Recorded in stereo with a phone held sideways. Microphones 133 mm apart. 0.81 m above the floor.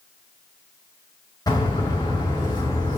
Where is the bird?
30° left (ahead or behind), 5 m.